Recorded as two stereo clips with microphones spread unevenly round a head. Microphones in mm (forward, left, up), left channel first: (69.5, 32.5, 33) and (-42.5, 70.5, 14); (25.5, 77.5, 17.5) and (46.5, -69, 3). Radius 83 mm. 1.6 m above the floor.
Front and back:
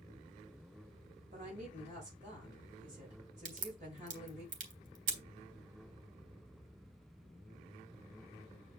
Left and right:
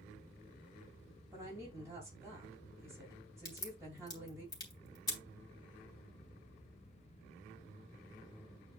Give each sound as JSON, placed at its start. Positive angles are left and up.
{"t": 1.3, "sound": "a woman speaking", "azimuth_deg": -160, "distance_m": 5.0}
{"t": 3.5, "sound": "a crack", "azimuth_deg": 165, "distance_m": 3.0}